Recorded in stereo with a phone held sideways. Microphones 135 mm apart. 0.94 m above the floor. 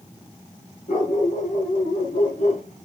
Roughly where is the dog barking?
Left.